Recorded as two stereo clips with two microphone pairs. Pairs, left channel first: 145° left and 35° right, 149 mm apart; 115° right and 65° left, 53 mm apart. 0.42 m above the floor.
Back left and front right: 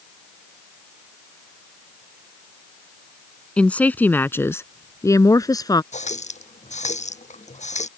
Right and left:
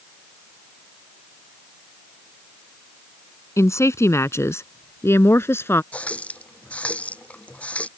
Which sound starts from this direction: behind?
A running tap, at 5.9 s.